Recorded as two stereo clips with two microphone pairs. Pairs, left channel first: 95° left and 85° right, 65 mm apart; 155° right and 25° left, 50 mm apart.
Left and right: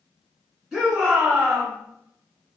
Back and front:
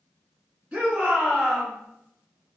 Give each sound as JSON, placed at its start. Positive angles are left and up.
{"t": 0.7, "sound": "a shout", "azimuth_deg": -15, "distance_m": 1.4}